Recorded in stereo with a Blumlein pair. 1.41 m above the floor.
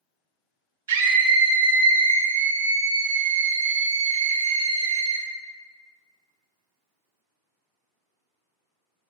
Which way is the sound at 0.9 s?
60° right.